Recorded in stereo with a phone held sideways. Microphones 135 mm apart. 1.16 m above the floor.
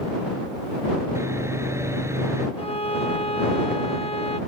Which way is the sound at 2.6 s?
45° left (ahead or behind).